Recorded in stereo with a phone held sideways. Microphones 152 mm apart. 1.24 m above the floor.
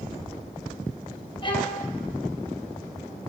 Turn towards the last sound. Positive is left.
turn(degrees=35)  # may be behind; listen again after turning